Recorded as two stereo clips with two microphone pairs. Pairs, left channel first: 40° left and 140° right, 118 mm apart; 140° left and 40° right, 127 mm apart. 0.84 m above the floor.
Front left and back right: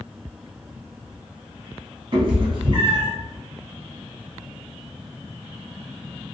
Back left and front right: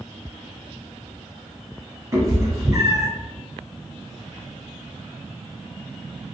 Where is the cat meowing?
100° right, 1.2 m.